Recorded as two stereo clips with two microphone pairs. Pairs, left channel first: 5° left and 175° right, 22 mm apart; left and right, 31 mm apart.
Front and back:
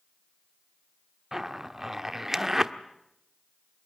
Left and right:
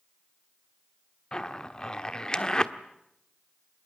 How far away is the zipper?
About 1.2 m.